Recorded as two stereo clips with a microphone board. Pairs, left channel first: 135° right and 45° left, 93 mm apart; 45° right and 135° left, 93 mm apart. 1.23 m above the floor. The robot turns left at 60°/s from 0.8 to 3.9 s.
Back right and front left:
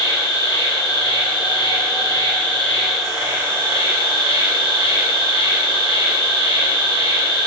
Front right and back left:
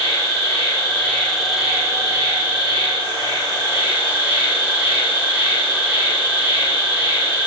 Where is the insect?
100° right, 1.2 m; by 7.5 s 75° left, 1.2 m.